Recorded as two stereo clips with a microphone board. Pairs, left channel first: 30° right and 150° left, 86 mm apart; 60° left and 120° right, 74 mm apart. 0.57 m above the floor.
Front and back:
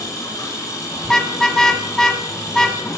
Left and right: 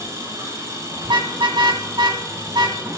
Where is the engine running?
75° right, 7.5 m.